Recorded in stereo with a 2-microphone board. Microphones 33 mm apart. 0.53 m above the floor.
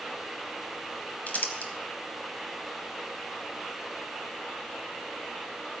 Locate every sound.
1.3 s crumpling: 55° left (ahead or behind), 1.2 m